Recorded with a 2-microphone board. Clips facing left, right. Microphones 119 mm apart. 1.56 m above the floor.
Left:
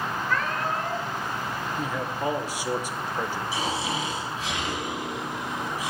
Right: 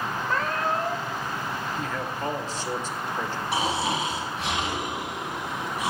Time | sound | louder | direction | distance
0.3 | a cat meowing | right 2 dB | 35° right (ahead or behind) | 1.8 m
1.8 | a man speaking | left 1 dB | 10° left (ahead or behind) | 1.4 m
3.5 | snoring | right 6 dB | 60° right (ahead or behind) | 6.5 m